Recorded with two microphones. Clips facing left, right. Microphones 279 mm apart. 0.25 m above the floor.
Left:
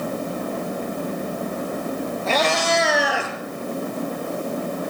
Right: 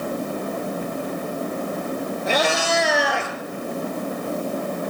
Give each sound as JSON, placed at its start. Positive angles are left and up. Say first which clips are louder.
{"t": 2.3, "sound": "a cat meowing", "louder": "even", "side_deg": -15, "distance_m": 1.9}